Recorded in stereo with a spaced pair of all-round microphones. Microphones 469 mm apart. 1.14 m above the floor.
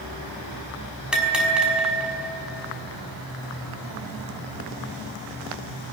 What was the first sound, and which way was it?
A bell, centre (ahead or behind).